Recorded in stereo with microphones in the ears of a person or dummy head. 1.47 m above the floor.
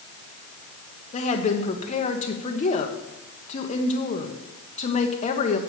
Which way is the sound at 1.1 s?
40° left (ahead or behind).